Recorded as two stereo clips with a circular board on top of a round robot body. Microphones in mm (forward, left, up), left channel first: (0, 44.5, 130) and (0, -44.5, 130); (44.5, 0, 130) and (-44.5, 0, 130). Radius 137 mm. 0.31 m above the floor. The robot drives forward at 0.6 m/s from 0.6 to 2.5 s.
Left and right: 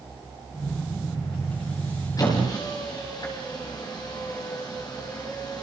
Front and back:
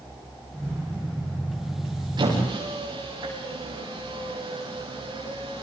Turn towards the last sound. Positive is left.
turn(degrees=145)